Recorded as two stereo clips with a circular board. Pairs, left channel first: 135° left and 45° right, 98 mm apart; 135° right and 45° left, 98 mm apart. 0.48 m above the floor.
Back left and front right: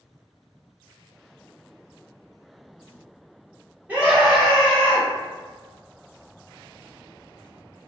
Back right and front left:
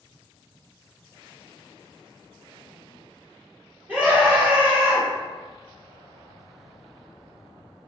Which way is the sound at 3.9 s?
Straight ahead.